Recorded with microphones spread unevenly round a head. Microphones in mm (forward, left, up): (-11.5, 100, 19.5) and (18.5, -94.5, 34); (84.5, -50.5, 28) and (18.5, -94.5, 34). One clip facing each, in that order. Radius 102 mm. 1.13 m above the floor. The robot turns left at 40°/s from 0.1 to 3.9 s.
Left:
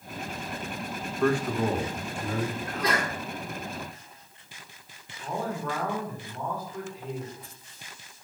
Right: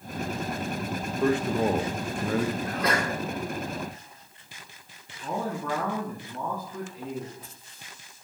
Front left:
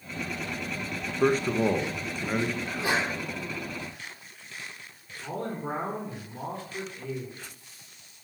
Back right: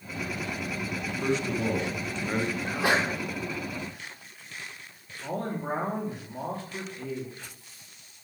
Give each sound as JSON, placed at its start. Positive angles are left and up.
{"t": 1.2, "sound": "a man speaking", "azimuth_deg": -5, "distance_m": 1.3}
{"t": 2.6, "sound": "a sneeze", "azimuth_deg": -115, "distance_m": 2.5}
{"t": 5.2, "sound": "a man speaking", "azimuth_deg": -95, "distance_m": 3.0}